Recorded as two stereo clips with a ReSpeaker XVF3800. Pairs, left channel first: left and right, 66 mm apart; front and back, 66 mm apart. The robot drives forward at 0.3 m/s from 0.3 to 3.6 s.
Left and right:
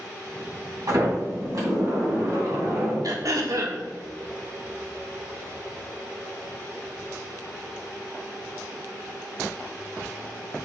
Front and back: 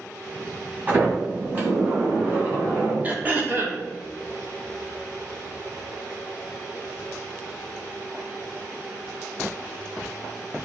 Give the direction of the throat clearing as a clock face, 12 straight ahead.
4 o'clock.